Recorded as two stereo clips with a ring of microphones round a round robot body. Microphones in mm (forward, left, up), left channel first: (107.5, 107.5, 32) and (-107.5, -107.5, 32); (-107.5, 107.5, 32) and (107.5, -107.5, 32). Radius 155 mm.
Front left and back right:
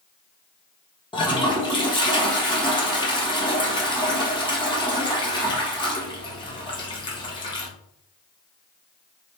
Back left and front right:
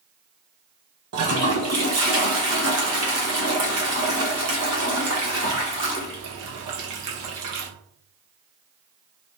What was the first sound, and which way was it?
A toilet flushing, 25° right.